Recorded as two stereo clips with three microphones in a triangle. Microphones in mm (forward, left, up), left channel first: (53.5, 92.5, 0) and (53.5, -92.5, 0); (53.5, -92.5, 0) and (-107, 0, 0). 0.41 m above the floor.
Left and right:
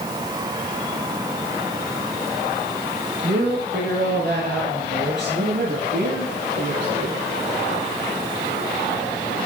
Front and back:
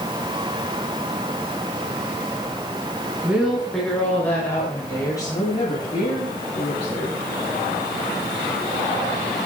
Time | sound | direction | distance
3.2 | a woman speaking | 125° right | 5 m